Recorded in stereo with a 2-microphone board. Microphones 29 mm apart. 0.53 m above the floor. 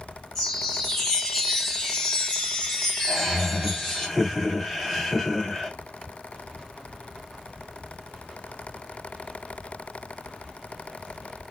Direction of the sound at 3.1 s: 5° left (ahead or behind).